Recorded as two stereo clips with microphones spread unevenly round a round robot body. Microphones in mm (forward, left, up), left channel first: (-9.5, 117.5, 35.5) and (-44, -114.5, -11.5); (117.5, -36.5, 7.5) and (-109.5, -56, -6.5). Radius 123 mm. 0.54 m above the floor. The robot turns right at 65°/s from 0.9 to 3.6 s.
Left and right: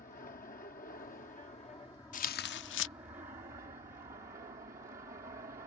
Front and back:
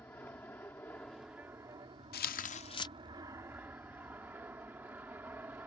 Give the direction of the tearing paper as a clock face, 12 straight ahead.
11 o'clock.